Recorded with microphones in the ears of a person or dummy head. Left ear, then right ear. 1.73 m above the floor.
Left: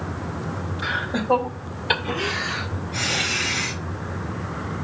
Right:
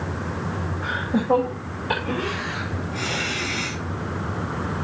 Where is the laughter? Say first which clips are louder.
Left 1 dB; 60° left (ahead or behind), 2.5 m; by 3.8 s 15° left (ahead or behind), 1.4 m.